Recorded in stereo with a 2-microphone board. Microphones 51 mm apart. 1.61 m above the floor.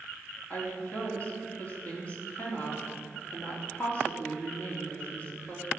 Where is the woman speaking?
30° left (ahead or behind), 3.5 m.